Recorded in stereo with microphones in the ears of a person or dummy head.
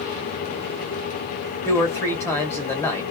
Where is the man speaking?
10° left (ahead or behind), 1.2 m.